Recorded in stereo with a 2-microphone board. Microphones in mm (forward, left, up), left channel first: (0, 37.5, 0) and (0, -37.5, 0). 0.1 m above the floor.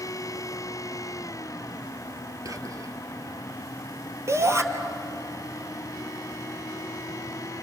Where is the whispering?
50° right (ahead or behind), 2.5 m.